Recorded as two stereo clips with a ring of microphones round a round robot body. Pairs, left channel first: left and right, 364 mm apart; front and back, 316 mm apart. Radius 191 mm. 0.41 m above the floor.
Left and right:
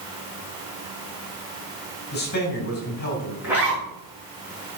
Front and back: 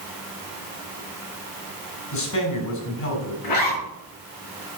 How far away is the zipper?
About 7 m.